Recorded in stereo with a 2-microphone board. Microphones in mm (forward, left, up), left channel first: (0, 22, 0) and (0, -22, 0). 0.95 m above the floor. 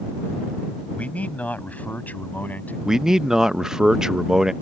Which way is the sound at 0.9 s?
30° left (ahead or behind).